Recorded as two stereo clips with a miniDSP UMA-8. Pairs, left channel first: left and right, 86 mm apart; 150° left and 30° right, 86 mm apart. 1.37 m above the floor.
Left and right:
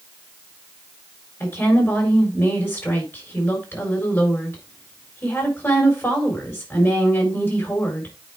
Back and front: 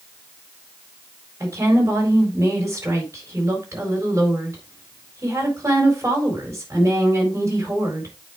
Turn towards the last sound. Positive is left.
turn(degrees=30)